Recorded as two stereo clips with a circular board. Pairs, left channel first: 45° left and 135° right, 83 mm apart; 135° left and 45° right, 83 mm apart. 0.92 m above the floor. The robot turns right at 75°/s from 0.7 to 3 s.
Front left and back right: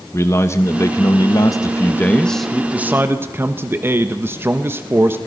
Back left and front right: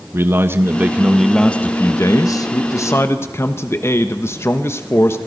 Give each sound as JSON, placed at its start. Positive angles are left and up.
{"t": 0.1, "sound": "a man speaking", "azimuth_deg": 5, "distance_m": 1.1}